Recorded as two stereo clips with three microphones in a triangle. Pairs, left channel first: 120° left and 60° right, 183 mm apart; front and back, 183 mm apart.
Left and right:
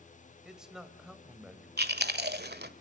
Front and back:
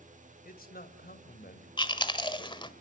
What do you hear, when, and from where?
0.5 s a man speaking: 25° left, 3 m
1.8 s chewing: 60° right, 1.7 m